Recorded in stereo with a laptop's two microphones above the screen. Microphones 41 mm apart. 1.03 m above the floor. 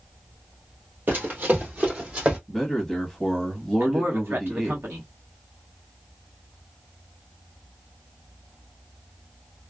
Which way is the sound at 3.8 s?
65° right (ahead or behind).